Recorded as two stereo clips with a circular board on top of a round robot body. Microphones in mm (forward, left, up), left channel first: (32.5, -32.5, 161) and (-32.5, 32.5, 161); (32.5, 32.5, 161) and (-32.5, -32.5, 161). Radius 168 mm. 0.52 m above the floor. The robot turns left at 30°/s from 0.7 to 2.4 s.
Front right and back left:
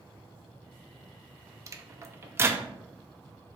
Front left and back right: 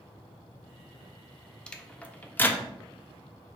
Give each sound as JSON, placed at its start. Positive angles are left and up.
{"t": 1.7, "sound": "a microwave", "azimuth_deg": 120, "distance_m": 0.5}